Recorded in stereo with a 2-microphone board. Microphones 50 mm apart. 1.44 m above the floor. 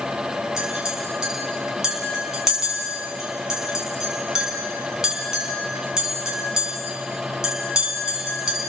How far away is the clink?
About 7.5 m.